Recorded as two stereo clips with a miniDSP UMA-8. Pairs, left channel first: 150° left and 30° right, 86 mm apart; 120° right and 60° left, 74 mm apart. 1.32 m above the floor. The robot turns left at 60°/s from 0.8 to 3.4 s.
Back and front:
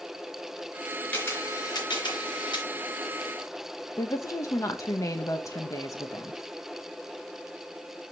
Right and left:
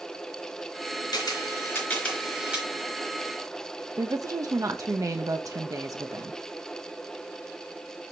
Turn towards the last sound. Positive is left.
turn(degrees=100)